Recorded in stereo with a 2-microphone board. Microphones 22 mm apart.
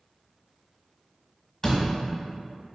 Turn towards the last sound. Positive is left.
turn(degrees=20)  # may be behind; listen again after turning